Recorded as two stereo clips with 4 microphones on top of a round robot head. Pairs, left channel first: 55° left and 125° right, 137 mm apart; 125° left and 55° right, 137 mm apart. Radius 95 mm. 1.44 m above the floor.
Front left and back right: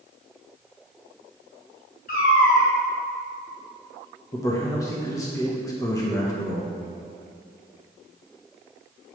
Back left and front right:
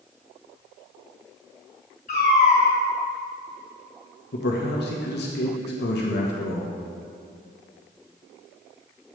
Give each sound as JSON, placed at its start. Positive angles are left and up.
{"t": 2.1, "sound": "a cat meowing", "azimuth_deg": 85, "distance_m": 2.5}
{"t": 4.3, "sound": "a man speaking", "azimuth_deg": 125, "distance_m": 1.4}